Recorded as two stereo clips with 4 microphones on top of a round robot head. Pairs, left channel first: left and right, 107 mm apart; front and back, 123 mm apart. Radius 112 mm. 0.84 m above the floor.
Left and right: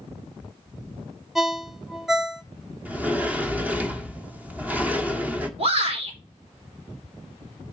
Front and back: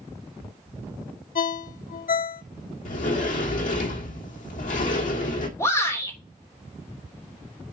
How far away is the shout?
About 3.5 m.